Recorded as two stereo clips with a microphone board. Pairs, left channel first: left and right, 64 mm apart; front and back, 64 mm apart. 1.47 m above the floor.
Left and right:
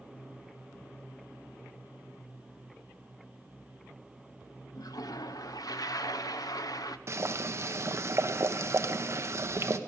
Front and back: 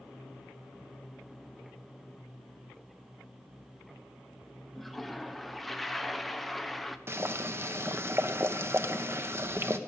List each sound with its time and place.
4.8 s a toilet flushing: 90° left, 0.7 m
7.1 s boiling: 135° right, 0.8 m